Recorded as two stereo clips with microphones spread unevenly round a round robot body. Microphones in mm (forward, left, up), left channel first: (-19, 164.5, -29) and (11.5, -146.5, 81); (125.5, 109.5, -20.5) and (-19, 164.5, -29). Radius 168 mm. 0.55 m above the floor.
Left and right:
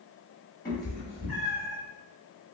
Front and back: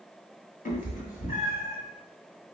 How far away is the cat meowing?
About 1.3 m.